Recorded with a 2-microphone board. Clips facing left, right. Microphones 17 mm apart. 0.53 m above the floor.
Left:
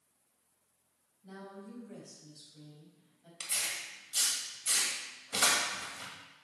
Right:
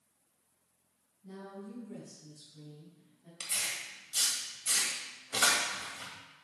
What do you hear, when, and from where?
1.2 s a woman speaking: 45° left (ahead or behind), 4 m
3.4 s tearing paper: 5° right (ahead or behind), 2 m